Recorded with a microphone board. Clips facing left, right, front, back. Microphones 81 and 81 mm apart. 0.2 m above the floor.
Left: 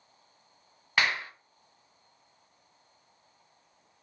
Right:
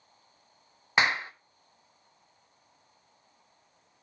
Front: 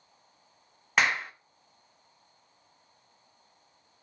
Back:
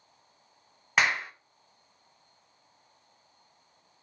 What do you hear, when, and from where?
1.0 s a clap: 90° right, 0.8 m